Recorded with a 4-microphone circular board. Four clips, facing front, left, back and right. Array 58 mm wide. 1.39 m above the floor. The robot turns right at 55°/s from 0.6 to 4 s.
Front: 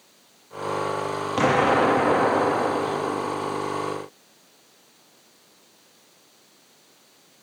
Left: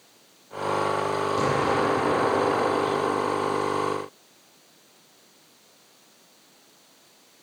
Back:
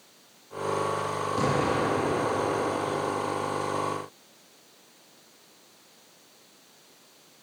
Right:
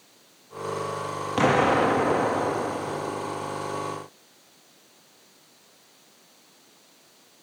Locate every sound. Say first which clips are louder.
1.4 s an explosion: right 6 dB, front 8 dB; 55° right, 2.5 m; by 3.6 s 70° left, 2.5 m